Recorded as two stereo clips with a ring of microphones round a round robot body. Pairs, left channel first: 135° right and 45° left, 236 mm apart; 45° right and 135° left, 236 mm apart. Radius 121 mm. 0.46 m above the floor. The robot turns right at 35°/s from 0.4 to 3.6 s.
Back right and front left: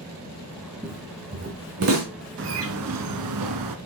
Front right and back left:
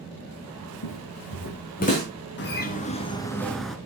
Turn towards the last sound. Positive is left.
turn(degrees=45)